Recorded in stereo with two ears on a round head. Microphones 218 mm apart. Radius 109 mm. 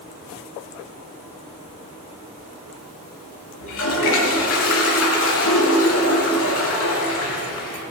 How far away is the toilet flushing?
About 3 m.